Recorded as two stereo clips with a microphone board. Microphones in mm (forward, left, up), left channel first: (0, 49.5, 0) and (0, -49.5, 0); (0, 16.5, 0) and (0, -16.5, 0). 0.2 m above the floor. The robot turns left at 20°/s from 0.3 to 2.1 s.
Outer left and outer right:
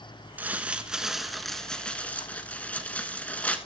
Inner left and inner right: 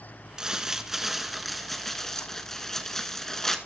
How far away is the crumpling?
About 1.1 m.